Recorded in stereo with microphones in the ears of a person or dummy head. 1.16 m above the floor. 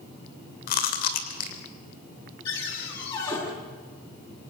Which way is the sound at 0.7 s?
50° left (ahead or behind).